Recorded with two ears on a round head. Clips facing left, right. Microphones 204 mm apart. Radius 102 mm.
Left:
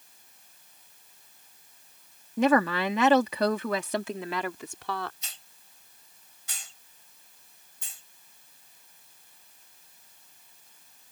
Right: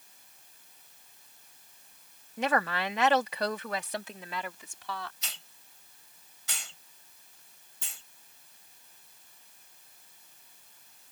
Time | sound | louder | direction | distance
2.4 | a woman speaking | left 7 dB | 65° left (ahead or behind) | ?
5.2 | a hiss | right 3 dB | 60° right (ahead or behind) | ?